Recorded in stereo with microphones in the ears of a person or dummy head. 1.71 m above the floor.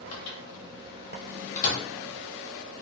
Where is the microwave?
45° left (ahead or behind), 1.1 m.